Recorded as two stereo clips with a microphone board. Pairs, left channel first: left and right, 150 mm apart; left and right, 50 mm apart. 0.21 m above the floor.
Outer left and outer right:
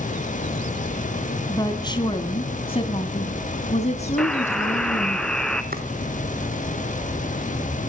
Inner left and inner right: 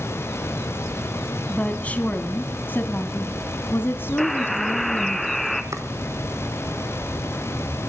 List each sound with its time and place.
1.5 s a woman speaking: 25° left (ahead or behind), 2.0 m; by 5.2 s 45° left (ahead or behind), 2.5 m
4.2 s a buzzer: 5° left (ahead or behind), 1.8 m
5.7 s chopping: 80° right, 1.7 m